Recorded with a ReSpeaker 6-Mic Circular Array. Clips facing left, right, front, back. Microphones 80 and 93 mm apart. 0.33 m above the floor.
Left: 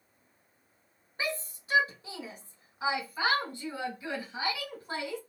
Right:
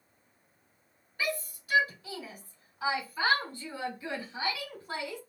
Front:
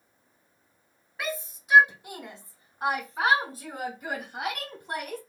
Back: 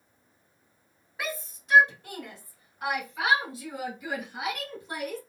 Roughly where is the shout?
Left.